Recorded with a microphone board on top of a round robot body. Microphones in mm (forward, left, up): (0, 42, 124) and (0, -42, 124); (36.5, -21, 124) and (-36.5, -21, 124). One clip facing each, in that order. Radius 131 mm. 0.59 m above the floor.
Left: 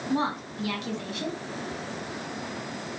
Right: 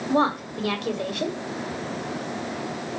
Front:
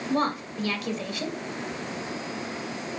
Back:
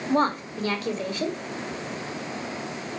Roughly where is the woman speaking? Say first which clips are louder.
Right 6 dB, back 3 dB; behind right.